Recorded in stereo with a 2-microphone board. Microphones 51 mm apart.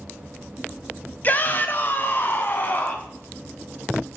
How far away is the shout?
About 1.1 m.